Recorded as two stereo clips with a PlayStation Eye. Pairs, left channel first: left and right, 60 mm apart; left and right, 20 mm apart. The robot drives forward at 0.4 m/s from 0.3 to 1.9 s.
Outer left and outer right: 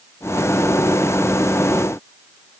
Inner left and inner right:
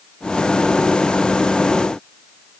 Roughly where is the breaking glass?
I don't hear breaking glass.